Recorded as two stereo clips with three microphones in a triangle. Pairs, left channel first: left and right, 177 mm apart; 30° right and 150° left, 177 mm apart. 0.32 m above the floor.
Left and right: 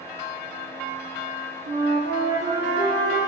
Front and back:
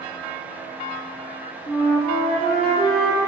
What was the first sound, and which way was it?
A flute, 95° right.